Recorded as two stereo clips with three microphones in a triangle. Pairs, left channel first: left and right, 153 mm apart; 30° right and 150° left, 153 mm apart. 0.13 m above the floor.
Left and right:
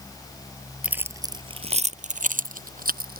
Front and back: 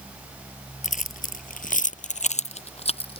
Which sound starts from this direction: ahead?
Keys jangling, at 0.8 s.